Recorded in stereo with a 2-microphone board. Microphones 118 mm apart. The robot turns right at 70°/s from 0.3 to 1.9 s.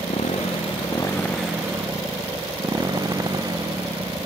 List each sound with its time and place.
0.0 s a motorcycle: 100° left; by 4.3 s 145° right